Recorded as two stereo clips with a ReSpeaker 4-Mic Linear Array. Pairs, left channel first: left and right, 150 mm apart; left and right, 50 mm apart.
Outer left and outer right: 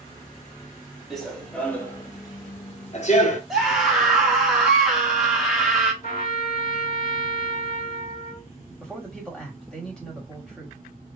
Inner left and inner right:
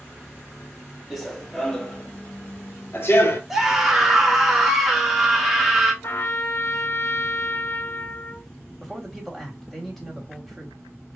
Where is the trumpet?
75° left (ahead or behind), 1.3 m.